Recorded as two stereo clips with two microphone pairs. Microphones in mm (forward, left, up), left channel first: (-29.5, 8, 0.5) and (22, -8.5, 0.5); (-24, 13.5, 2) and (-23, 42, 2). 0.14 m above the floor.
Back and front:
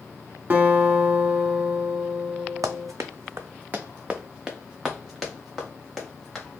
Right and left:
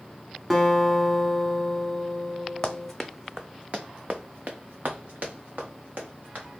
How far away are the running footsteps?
About 0.5 m.